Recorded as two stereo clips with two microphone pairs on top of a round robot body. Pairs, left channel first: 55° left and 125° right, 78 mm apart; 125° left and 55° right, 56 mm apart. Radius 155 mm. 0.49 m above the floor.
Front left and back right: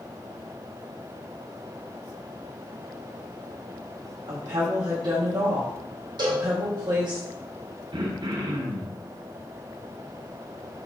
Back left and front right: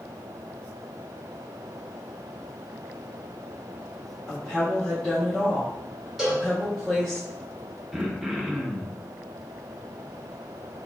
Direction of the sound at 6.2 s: 140° right.